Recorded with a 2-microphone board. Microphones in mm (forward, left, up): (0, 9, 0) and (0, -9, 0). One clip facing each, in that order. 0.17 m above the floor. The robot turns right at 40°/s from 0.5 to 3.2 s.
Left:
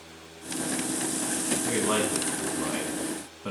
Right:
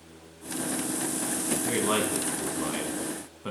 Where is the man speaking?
20° right (ahead or behind), 1.1 m; by 3.5 s 10° right (ahead or behind), 1.1 m.